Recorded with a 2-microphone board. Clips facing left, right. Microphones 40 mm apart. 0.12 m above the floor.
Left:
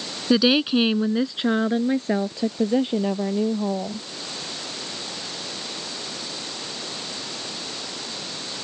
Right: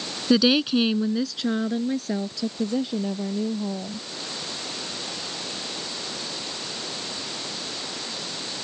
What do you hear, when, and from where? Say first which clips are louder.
0.3 s a woman speaking: left 1 dB; 10° left (ahead or behind); by 4.0 s 35° left (ahead or behind)